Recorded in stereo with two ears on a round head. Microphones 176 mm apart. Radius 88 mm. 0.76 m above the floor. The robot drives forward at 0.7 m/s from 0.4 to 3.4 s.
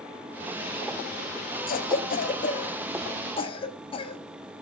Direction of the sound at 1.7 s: 45° left (ahead or behind).